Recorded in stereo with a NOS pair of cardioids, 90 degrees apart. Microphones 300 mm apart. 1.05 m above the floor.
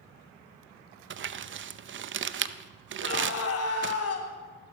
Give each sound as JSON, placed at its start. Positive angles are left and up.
{"t": 1.1, "sound": "crumpling", "azimuth_deg": -40, "distance_m": 0.6}
{"t": 3.0, "sound": "a scream", "azimuth_deg": 55, "distance_m": 3.0}